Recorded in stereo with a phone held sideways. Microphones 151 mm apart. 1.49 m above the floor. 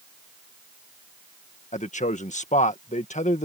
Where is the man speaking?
50° left (ahead or behind).